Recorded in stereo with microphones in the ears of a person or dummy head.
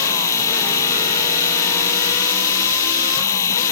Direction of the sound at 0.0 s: 15° left (ahead or behind).